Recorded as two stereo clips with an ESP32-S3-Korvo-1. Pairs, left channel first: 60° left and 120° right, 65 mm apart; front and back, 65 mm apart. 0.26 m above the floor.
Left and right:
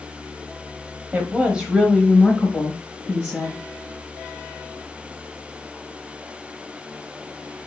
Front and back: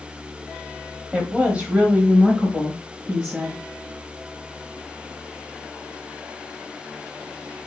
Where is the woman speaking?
125° right, 1.1 m; by 3.6 s 110° left, 1.7 m.